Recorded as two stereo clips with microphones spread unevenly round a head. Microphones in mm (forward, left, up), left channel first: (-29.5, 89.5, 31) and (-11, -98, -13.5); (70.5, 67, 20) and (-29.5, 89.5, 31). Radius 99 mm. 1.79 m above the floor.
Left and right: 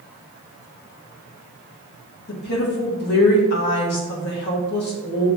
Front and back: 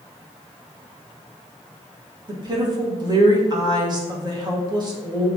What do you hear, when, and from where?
2.3 s a woman speaking: 125° left, 3 m